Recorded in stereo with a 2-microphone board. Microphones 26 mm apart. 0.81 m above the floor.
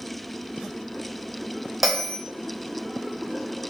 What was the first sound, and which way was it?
A bell, 10° right (ahead or behind).